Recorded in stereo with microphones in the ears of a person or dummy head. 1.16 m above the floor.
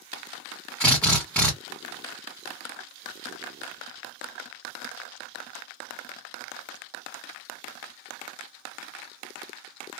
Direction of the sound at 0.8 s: Centre (ahead or behind).